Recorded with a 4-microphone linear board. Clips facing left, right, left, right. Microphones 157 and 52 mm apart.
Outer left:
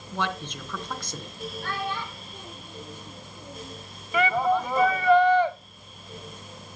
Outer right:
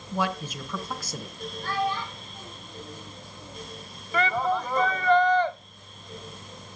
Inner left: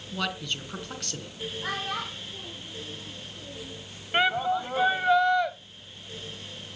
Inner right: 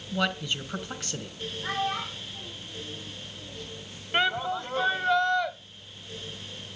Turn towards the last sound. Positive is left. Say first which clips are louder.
# outer left 3 dB, inner left 2 dB
turn(degrees=10)  # may be behind; listen again after turning